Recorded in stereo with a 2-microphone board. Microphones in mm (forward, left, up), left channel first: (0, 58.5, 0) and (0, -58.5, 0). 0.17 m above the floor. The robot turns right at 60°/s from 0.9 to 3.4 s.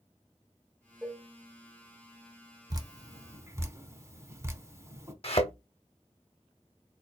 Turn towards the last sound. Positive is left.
turn(degrees=55)  # may be behind; listen again after turning